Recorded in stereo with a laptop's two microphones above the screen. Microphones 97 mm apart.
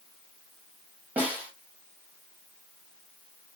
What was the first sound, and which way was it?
A snare drum, 15° right (ahead or behind).